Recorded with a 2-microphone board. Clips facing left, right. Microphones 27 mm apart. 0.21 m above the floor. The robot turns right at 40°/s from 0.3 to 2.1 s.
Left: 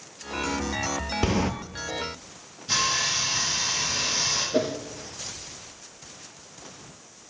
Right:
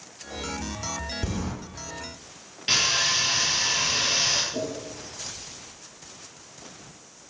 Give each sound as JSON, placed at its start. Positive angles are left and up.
{"t": 1.2, "sound": "a sliding door", "side_deg": 55, "distance_m": 1.0}
{"t": 2.7, "sound": "sawing", "side_deg": -70, "distance_m": 4.0}
{"t": 4.5, "sound": "a whoosh", "side_deg": 65, "distance_m": 1.5}